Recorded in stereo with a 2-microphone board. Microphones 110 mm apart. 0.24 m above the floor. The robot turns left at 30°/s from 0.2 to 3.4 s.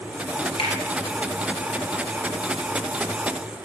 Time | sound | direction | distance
0.6 | a finger snap | 55° left (ahead or behind) | 3 m